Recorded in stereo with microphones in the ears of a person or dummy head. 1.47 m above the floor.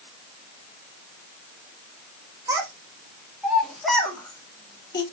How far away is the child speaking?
About 1.9 m.